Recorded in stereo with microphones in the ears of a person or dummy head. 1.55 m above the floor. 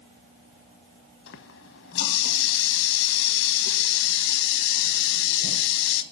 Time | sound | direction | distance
1.3 | a running tap | 65° left (ahead or behind) | 1.2 m